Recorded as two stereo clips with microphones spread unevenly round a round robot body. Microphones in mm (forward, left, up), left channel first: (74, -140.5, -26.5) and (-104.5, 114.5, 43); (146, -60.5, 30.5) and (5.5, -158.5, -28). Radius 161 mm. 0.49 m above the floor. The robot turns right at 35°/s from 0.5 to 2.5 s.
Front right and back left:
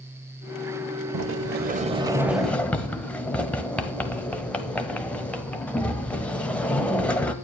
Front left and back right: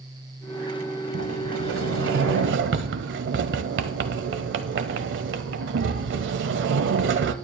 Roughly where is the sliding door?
Behind.